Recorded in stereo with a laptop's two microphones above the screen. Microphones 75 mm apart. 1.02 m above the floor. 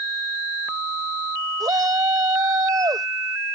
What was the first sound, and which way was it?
A shout, 55° right (ahead or behind).